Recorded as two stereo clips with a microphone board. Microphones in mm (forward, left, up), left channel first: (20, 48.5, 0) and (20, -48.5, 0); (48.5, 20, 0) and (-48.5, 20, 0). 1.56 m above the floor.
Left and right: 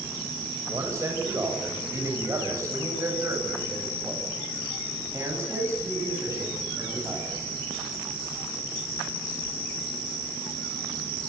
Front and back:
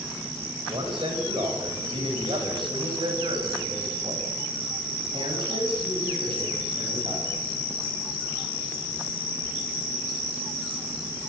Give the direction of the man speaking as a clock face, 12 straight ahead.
5 o'clock.